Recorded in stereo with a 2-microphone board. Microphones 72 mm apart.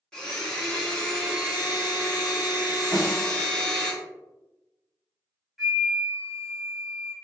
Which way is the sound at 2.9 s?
70° right (ahead or behind).